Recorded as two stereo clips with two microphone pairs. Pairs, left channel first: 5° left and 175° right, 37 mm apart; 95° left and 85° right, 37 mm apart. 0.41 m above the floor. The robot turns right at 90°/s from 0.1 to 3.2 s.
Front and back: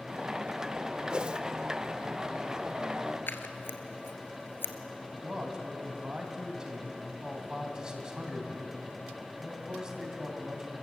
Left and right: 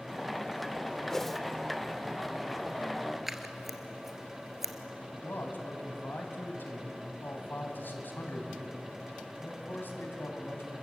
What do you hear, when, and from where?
1.1 s a whoosh: 165° left, 0.7 m; by 1.4 s 170° right, 0.7 m
3.3 s scissors: straight ahead, 1.4 m
5.1 s a man speaking: 120° left, 2.5 m